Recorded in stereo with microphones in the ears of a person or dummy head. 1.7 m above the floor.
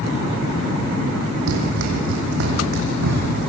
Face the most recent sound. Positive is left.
turn(degrees=-75)  # may be behind; listen again after turning